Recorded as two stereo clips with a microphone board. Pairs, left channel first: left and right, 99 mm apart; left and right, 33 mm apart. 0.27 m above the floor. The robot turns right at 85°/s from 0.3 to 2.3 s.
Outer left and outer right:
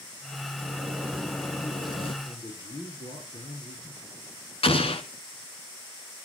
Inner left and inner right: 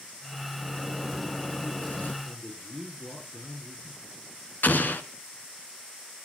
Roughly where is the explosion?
Left.